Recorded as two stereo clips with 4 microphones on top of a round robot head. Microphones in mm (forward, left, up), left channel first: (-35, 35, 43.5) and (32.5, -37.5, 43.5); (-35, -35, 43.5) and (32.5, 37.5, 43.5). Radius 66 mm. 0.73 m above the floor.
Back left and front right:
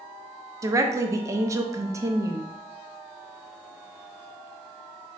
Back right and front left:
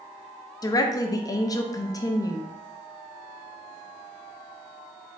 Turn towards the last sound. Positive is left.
turn(degrees=-95)